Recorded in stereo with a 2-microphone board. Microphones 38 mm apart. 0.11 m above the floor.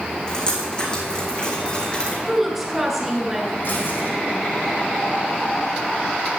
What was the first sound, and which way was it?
Dripping, 20° left (ahead or behind).